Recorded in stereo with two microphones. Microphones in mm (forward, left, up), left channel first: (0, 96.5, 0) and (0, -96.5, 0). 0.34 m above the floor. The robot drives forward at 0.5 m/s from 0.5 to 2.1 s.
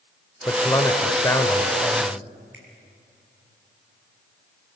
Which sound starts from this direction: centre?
A man speaking, at 0.5 s.